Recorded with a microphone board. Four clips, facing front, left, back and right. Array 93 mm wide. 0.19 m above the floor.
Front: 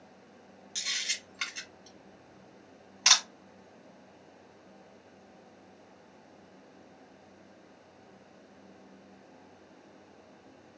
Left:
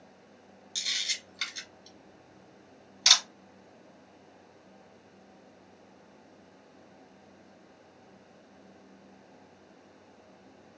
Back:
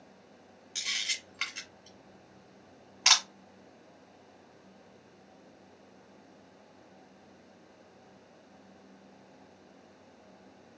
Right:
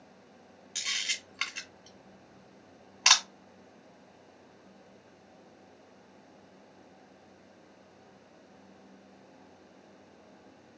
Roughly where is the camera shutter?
Right.